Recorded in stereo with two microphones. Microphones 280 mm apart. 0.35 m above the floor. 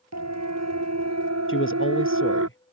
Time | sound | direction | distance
0.1 | a siren | 70° right (ahead or behind) | ?
1.5 | a man speaking | 45° left (ahead or behind) | ?